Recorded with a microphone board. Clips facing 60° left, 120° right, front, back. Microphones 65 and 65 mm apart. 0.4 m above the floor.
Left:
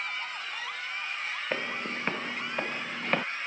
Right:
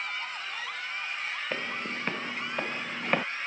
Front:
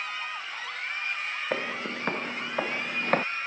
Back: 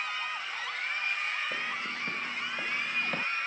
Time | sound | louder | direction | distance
1.5 | footsteps | left 1 dB, front 4 dB | 10° right | ?